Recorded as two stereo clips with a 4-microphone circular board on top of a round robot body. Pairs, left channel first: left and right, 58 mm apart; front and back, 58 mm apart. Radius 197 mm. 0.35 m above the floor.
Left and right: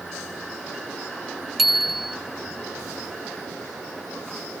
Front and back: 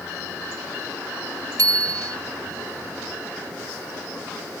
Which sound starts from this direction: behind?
A bicycle bell, at 1.6 s.